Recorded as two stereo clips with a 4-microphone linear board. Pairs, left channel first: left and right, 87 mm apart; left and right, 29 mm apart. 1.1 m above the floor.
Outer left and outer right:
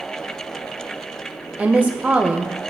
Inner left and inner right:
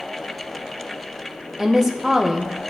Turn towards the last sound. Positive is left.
turn(degrees=-15)  # may be behind; listen again after turning